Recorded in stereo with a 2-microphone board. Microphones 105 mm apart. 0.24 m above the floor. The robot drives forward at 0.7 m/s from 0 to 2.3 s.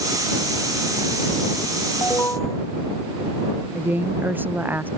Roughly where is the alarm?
Left.